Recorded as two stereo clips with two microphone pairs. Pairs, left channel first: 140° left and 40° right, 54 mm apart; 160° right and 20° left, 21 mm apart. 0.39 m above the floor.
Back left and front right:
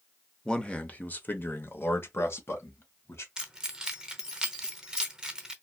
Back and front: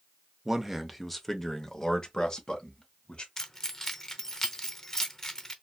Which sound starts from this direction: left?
A man speaking, at 0.5 s.